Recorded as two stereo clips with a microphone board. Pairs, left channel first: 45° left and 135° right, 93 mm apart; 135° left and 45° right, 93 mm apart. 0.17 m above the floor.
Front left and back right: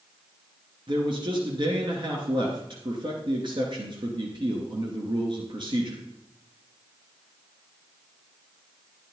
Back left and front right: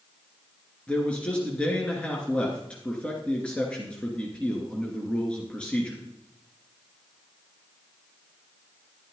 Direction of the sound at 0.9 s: 150° right.